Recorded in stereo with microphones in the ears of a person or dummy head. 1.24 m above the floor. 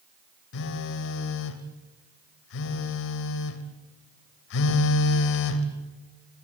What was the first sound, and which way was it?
A phone buzzing, 65° left (ahead or behind).